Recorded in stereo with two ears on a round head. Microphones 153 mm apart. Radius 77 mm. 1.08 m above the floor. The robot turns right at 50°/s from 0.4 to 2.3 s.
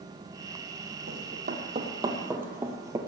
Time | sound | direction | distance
1.1 | running footsteps | 60° right (ahead or behind) | 2.5 m